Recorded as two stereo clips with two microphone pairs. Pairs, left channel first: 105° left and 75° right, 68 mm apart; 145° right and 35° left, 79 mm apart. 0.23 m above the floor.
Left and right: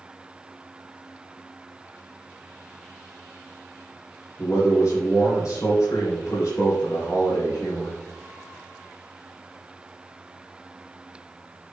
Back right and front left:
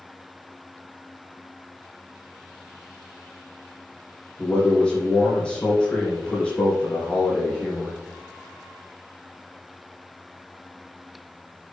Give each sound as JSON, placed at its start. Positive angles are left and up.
{"t": 4.4, "sound": "a man speaking", "azimuth_deg": 135, "distance_m": 4.0}